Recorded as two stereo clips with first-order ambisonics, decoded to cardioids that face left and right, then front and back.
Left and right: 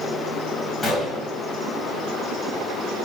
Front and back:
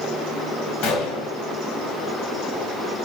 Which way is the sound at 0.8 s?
15° left.